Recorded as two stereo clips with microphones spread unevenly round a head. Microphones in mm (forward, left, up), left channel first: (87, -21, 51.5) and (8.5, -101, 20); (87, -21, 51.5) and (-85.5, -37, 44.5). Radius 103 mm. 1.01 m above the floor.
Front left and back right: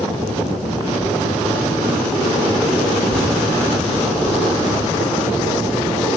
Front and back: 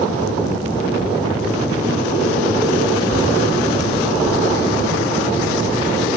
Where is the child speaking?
60° right, 3 m.